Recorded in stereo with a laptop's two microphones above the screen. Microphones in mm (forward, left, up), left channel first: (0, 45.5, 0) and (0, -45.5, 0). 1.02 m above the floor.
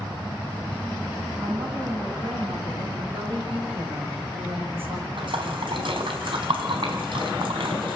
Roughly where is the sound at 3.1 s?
Right.